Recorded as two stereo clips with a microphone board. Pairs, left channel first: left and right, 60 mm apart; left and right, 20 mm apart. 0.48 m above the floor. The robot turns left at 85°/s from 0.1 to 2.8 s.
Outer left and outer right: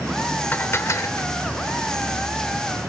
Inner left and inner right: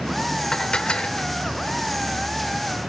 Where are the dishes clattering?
145° left, 1.1 m; by 1.3 s 80° left, 1.1 m.